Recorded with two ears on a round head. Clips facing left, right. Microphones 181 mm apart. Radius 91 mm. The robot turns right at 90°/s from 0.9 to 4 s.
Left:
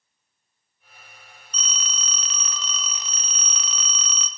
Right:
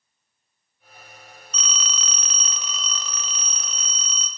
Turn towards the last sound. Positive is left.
turn(degrees=105)